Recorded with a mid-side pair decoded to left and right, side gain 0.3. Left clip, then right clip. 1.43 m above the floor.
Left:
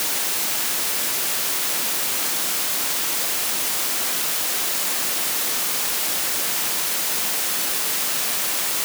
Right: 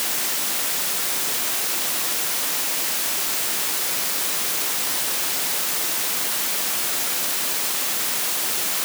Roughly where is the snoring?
I don't hear snoring.